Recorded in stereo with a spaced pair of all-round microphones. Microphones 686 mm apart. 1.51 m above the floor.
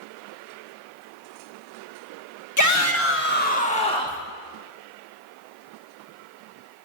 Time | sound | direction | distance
2.6 | a shout | 25° left (ahead or behind) | 1.5 m